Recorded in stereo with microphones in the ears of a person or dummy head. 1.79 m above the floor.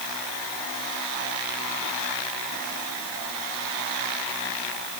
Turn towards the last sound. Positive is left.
No sound to turn to.